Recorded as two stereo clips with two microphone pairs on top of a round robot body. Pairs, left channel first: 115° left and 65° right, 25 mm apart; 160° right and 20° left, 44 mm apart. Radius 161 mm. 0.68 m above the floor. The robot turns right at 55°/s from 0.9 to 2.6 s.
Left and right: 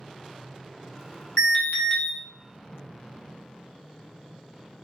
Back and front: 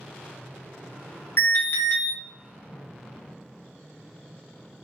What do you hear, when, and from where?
1.4 s an alarm: 170° left, 1.3 m; by 2.1 s 150° right, 1.3 m